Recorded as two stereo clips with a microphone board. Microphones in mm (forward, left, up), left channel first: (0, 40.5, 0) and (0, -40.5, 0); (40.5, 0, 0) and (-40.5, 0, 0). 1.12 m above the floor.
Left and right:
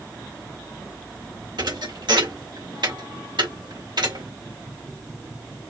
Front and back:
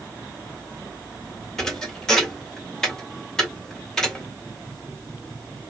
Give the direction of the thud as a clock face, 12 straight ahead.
3 o'clock.